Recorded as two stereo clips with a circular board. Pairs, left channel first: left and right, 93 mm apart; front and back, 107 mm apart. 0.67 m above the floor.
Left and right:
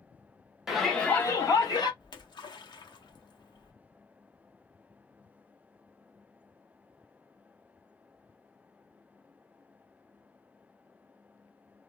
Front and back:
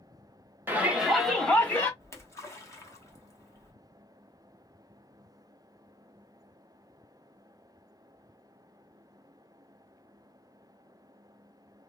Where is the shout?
165° right, 0.9 m; by 1.9 s 65° left, 1.3 m.